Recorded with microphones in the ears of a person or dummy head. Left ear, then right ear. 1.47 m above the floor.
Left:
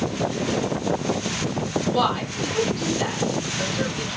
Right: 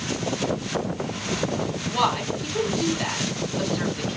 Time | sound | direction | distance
1.9 | a woman speaking | 5° right (ahead or behind) | 2.5 m